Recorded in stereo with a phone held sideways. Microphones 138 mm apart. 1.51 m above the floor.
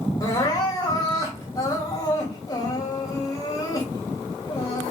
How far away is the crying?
About 3.5 m.